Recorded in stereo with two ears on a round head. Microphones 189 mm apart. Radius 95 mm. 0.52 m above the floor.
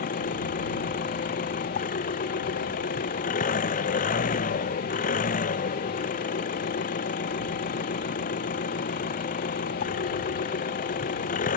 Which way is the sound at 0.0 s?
40° left (ahead or behind).